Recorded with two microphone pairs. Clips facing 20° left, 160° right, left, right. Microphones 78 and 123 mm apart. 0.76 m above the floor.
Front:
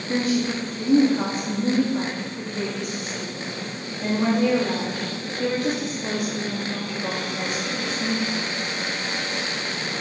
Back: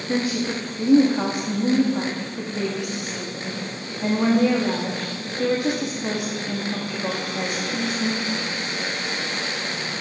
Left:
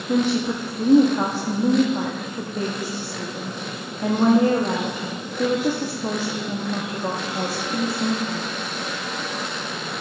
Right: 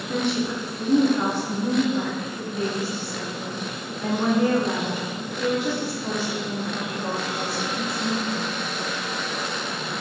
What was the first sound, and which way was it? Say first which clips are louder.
A woman speaking: front 1 dB, left 4 dB; 125° left.